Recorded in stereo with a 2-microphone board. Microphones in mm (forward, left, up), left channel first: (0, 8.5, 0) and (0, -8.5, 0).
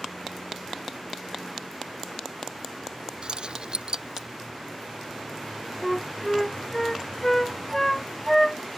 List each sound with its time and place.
3.2 s keys jangling: 55° right (ahead or behind); by 4.3 s 50° right (ahead or behind)
5.8 s a flute: 15° left (ahead or behind)